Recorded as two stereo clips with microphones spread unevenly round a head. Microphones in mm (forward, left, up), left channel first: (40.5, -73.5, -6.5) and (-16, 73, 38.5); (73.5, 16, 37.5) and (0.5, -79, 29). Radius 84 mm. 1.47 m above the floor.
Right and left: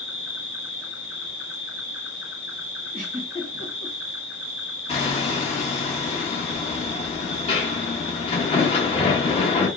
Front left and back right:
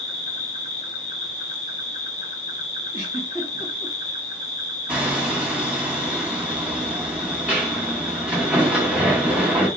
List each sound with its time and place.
0.0 s an insect: 35° left, 1.4 m
2.9 s a giggle: 90° left, 1.3 m
4.9 s hammering: 50° right, 0.8 m